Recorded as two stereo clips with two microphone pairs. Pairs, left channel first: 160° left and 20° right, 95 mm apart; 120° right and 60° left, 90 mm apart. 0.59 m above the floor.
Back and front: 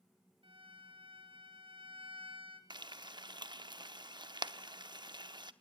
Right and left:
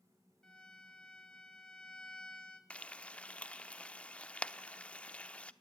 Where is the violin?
40° right, 3 m.